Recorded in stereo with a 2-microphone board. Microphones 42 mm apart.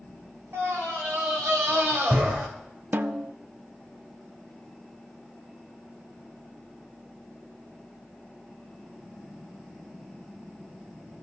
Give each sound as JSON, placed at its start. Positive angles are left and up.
{"t": 0.5, "sound": "a scream", "side_deg": -80, "distance_m": 4.5}
{"t": 2.9, "sound": "a snare drum", "side_deg": -50, "distance_m": 0.5}